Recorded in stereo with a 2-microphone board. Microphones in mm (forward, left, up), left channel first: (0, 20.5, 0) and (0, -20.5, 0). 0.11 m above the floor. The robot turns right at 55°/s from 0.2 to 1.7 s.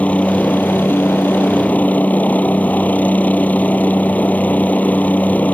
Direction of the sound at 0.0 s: 45° left.